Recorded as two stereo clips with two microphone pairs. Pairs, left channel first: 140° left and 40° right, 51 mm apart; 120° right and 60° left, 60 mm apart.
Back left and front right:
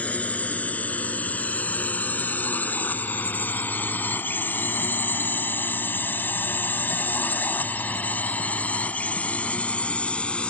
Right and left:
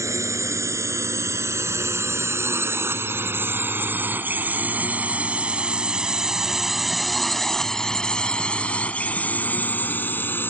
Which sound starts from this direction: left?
A drone, at 0.0 s.